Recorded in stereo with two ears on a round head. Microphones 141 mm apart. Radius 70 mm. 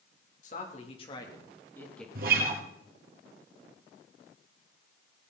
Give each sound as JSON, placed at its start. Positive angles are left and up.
{"t": 0.4, "sound": "a man speaking", "side_deg": 50, "distance_m": 3.0}
{"t": 2.1, "sound": "a guitar", "side_deg": -60, "distance_m": 3.0}